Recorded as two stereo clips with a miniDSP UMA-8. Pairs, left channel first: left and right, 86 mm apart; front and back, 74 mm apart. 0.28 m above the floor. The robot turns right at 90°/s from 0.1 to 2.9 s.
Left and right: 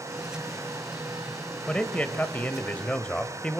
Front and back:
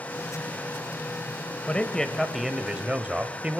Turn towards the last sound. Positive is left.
turn(degrees=140)